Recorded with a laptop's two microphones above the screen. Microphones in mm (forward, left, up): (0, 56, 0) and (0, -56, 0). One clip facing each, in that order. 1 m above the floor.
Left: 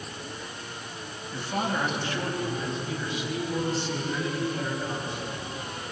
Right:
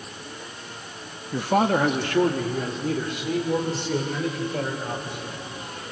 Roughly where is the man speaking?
Right.